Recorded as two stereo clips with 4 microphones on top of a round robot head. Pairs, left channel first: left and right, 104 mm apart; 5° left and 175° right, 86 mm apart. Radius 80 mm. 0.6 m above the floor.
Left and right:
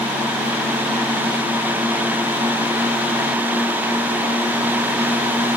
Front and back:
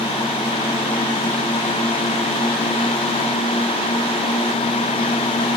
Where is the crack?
I don't hear a crack.